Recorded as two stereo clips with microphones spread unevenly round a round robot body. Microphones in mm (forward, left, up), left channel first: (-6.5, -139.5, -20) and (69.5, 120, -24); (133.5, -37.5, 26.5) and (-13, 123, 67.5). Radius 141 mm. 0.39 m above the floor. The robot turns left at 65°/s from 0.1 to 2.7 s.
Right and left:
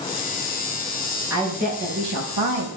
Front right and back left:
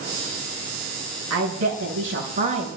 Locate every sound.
1.3 s a woman speaking: 155° left, 7.5 m; by 2.7 s 65° left, 7.5 m